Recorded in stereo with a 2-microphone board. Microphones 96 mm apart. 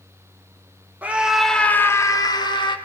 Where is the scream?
15° right (ahead or behind), 1.7 m; by 2.8 s 55° left (ahead or behind), 2 m.